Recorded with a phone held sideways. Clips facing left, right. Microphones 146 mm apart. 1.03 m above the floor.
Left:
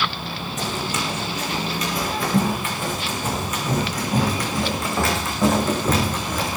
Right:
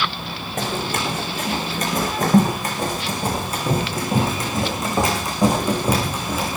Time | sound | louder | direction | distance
0.6 | running footsteps | right 3 dB | 55° right (ahead or behind) | 5.5 m